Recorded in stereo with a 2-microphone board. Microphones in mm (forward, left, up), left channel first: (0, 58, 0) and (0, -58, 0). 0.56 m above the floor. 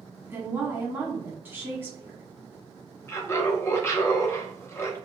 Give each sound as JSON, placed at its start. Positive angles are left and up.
{"t": 0.2, "sound": "a woman speaking", "side_deg": -20, "distance_m": 1.2}
{"t": 3.1, "sound": "laughter", "side_deg": 25, "distance_m": 0.8}